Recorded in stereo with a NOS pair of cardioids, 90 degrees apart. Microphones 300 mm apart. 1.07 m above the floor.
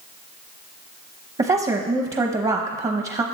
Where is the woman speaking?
20° right, 0.8 m.